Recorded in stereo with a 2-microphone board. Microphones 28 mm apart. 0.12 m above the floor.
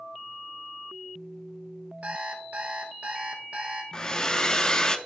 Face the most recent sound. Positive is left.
turn(degrees=25)  # may be behind; listen again after turning